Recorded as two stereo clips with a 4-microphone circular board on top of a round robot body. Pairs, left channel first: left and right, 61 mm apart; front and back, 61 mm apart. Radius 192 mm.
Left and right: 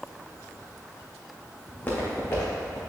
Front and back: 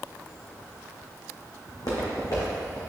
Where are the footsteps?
25° left, 2 m; by 2.8 s 40° left, 3 m.